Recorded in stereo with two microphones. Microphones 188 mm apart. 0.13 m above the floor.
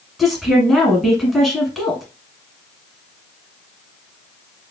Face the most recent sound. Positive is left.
turn(degrees=0)  # may be behind; listen again after turning